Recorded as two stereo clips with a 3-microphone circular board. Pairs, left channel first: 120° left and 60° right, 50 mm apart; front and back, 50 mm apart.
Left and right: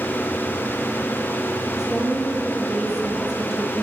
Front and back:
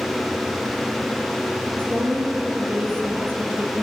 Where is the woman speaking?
140° right, 6.5 m.